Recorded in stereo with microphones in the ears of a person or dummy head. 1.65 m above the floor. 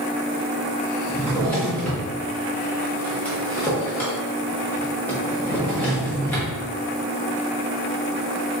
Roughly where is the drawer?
Centre.